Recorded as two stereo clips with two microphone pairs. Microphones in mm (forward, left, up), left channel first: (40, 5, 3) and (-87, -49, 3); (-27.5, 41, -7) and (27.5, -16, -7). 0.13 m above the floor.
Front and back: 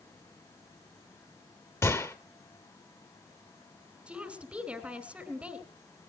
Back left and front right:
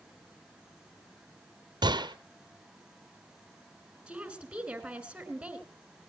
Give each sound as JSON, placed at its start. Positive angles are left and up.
{"t": 1.8, "sound": "a gunshot", "azimuth_deg": -50, "distance_m": 0.8}
{"t": 4.1, "sound": "a woman speaking", "azimuth_deg": -95, "distance_m": 1.7}